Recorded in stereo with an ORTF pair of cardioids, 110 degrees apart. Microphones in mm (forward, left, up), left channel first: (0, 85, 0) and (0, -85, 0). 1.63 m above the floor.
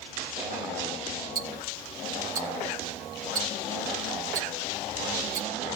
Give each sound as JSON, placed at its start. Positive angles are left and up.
{"t": 1.4, "sound": "ticking", "azimuth_deg": -60, "distance_m": 2.5}